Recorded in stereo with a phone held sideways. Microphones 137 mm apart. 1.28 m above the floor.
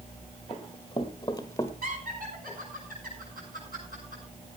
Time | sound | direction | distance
0.5 | running footsteps | 40° left (ahead or behind) | 1.7 m
1.8 | laughter | 75° right (ahead or behind) | 7.5 m